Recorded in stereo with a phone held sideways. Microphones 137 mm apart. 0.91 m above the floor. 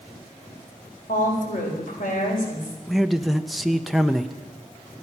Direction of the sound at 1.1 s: 75° left (ahead or behind).